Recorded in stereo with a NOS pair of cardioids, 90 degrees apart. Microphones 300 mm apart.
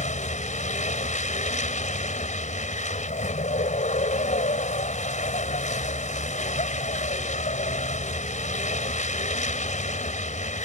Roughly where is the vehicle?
Ahead left.